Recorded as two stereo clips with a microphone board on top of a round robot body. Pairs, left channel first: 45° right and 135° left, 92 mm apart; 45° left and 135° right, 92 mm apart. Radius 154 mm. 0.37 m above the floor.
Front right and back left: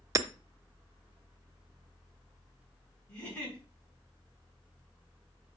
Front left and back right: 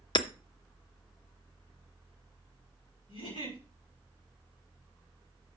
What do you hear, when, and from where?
0.1 s hammering: 80° left, 0.7 m
3.1 s a giggle: 30° left, 6 m